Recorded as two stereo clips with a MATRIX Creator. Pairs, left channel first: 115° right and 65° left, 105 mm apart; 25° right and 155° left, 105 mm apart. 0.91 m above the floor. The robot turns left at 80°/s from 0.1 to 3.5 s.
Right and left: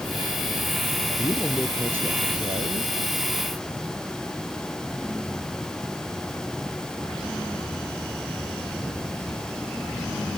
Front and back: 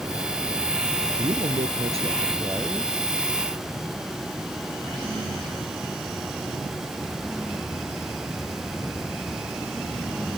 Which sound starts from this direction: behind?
A man speaking, at 1.2 s.